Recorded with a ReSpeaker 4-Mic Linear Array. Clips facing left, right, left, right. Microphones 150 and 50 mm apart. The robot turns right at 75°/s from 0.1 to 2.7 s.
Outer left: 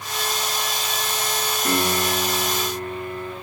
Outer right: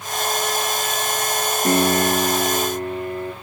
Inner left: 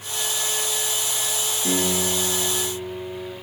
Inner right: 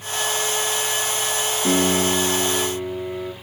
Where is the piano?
145° right, 4.5 m; by 3.3 s 65° right, 4.5 m.